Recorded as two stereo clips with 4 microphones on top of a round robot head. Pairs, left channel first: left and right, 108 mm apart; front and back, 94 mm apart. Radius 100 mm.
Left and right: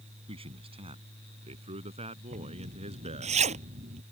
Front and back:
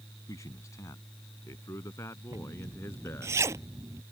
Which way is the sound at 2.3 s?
110° right.